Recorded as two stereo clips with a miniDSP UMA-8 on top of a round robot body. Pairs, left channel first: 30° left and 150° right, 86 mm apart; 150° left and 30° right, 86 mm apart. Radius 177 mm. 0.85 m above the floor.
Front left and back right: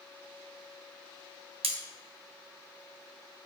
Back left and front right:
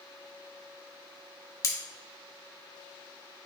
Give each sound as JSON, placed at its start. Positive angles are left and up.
{"t": 1.6, "sound": "cutlery clinking", "azimuth_deg": -155, "distance_m": 0.7}